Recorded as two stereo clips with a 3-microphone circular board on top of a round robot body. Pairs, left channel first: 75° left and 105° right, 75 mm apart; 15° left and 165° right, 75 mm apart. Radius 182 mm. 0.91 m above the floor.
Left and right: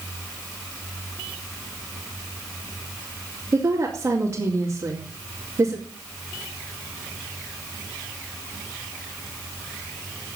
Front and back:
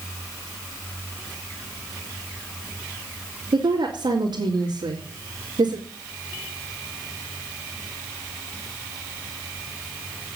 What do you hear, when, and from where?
3.5 s a woman speaking: 155° right, 3 m